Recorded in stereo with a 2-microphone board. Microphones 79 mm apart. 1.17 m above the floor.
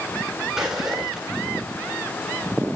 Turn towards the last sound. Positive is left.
turn(degrees=-5)  # may be behind; listen again after turning